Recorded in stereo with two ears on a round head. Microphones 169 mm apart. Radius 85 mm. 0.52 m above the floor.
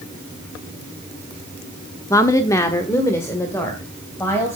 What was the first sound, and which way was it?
A woman speaking, 15° left (ahead or behind).